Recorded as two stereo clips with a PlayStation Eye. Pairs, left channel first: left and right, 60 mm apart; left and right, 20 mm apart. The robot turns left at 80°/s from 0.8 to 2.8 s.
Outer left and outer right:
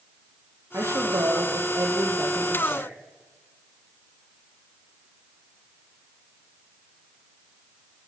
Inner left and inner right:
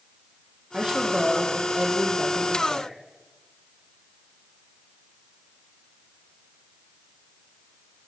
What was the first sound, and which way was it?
A woman speaking, 50° right.